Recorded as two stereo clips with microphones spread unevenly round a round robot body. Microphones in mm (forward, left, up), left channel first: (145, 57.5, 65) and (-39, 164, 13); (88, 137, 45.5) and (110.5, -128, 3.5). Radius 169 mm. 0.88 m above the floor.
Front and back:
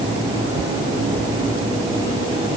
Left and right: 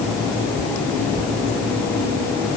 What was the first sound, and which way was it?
Only background noise.